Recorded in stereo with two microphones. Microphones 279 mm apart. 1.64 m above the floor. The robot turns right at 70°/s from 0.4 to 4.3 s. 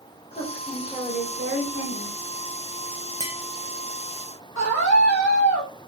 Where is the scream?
75° left (ahead or behind), 2.5 m.